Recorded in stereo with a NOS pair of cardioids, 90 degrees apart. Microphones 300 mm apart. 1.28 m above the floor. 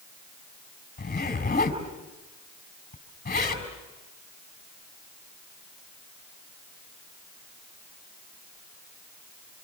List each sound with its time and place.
1.0 s a zipper: 30° left, 5 m